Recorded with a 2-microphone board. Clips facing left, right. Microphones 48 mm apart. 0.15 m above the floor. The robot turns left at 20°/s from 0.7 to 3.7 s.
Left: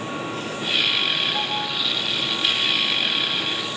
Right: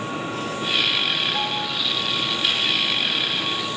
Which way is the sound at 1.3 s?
10° right (ahead or behind).